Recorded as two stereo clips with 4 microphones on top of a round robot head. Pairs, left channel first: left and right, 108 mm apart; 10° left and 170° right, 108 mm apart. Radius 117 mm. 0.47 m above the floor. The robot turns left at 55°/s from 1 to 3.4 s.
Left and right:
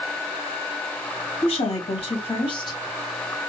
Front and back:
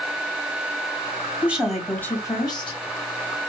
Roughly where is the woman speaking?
Behind left.